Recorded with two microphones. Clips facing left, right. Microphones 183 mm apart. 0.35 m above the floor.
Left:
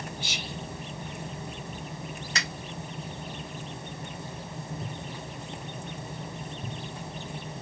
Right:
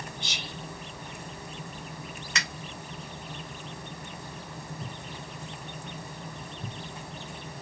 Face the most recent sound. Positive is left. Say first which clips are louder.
# even
turn(degrees=35)  # may be behind; listen again after turning